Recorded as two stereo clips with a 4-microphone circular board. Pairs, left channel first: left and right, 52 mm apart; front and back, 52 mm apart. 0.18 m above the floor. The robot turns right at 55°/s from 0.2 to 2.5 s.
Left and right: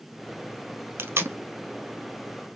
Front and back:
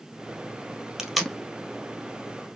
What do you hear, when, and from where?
1.0 s tape being pulled: 100° right, 0.8 m; by 1.4 s 80° right, 0.8 m